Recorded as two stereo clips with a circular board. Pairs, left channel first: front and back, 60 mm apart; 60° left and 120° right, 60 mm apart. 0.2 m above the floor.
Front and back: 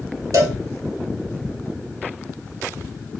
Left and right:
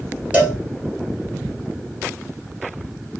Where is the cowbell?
175° left, 2 m.